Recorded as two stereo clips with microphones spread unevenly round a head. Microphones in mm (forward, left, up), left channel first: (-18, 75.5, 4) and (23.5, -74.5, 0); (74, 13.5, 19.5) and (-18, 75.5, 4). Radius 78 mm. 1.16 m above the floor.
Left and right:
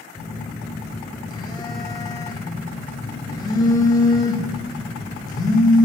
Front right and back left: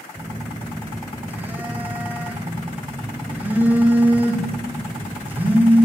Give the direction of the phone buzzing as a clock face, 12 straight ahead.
10 o'clock.